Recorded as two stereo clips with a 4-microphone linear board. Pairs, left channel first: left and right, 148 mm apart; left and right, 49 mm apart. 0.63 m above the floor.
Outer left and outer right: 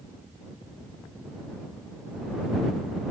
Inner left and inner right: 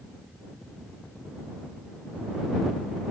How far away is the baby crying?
No baby crying in this recording.